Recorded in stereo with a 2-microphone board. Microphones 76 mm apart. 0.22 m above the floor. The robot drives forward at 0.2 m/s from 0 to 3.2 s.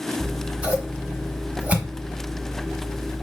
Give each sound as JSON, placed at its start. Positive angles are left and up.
{"t": 0.2, "sound": "scissors", "side_deg": -15, "distance_m": 1.1}